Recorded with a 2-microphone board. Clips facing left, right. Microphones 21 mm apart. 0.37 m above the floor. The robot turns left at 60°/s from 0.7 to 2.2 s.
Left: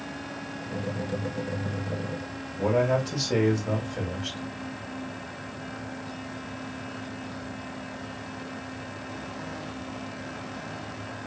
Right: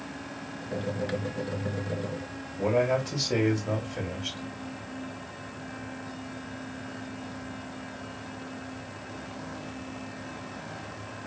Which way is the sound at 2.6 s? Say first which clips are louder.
Left 1 dB; centre (ahead or behind).